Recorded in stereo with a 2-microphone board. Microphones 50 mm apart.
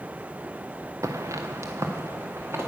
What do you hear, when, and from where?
1.0 s footsteps: 85° right, 0.9 m; by 2.7 s 55° right (ahead or behind), 2.5 m